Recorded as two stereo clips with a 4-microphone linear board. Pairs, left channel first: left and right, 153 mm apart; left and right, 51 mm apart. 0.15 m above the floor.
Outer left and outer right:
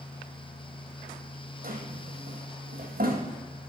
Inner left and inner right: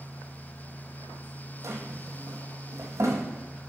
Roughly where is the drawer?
Right.